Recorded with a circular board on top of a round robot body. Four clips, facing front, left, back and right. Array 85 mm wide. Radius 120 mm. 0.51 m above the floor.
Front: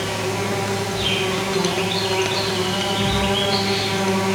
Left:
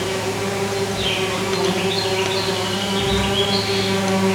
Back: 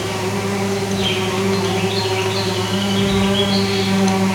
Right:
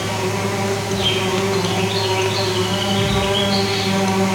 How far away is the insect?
About 3 m.